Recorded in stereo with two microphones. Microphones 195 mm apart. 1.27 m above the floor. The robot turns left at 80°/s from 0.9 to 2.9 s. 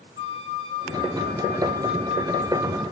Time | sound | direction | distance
0.2 | a flute | 30° right | 1.2 m